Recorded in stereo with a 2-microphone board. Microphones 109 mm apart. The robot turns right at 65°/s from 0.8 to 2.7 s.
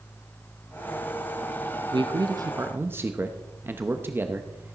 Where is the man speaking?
80° right, 0.8 m; by 4.7 s 25° right, 0.8 m.